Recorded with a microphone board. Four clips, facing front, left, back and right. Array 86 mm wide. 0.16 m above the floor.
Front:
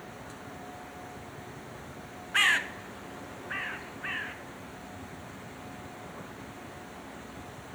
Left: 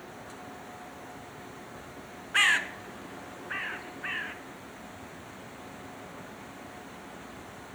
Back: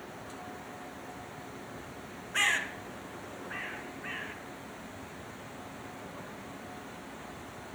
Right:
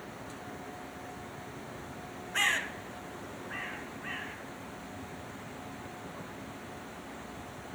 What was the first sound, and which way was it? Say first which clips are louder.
A bird: left 5 dB, front 4 dB; 50° left.